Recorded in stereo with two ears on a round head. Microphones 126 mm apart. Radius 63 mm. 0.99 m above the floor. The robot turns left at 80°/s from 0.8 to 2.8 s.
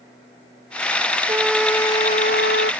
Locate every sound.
1.3 s a trumpet: 160° right; by 2.7 s 85° left